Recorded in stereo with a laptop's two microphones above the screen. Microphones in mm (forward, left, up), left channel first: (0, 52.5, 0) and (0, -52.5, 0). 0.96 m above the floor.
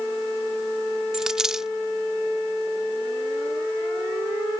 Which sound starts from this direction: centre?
A dropped coin, at 1.1 s.